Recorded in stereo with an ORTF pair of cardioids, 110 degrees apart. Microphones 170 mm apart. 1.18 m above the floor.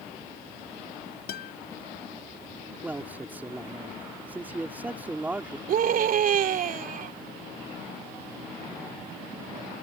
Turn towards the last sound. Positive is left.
turn(degrees=-55)